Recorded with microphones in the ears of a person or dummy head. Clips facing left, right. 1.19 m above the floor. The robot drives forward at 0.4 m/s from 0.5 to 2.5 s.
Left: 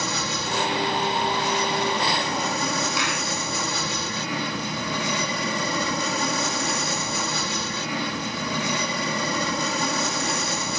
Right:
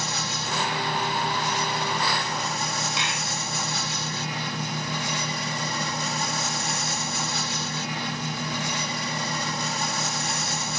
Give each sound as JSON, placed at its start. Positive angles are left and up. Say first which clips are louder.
{"t": 0.0, "sound": "an aircraft", "louder": "left 4 dB", "side_deg": 60}
{"t": 3.0, "sound": "a clap", "louder": "left 4 dB", "side_deg": -20}